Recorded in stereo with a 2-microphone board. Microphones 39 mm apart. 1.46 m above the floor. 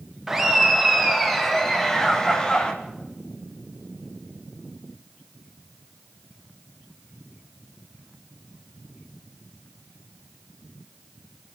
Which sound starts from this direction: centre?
Laughter, at 0.3 s.